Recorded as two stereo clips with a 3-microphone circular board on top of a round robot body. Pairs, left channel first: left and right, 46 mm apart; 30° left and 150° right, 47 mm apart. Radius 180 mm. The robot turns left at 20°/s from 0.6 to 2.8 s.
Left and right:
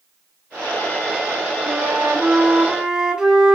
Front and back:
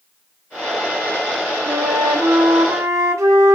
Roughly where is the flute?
Behind right.